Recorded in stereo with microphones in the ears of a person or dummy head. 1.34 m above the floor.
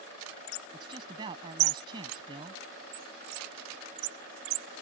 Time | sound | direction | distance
0.7 | a man speaking | 25° right (ahead or behind) | ?